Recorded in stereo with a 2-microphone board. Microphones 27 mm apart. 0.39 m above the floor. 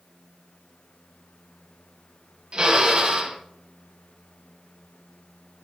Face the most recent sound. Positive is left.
turn(degrees=-35)  # may be behind; listen again after turning